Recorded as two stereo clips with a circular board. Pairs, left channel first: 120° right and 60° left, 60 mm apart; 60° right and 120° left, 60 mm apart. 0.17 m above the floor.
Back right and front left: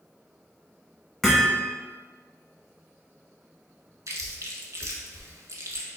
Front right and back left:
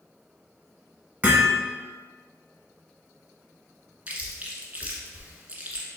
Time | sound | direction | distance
1.2 | hammering | 155° left | 1.1 m
4.1 | chewing | 60° left | 0.9 m